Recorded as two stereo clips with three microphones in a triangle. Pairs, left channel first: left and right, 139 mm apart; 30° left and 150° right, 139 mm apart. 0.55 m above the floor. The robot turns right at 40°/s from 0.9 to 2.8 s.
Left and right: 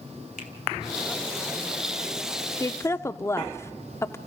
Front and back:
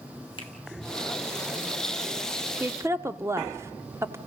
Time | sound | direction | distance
0.4 | a finger snap | 80° left | 2.5 m
2.6 | a woman speaking | 145° left | 0.8 m